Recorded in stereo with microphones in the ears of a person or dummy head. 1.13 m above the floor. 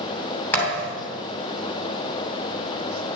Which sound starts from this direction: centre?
A thud, at 0.5 s.